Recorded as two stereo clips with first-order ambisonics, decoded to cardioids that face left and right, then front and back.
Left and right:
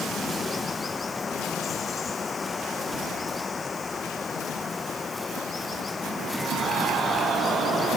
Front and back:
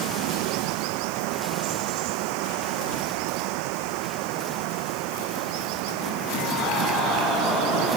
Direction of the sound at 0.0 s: 165° left.